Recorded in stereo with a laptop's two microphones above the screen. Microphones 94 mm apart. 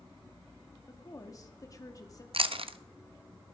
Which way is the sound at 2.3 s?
80° right.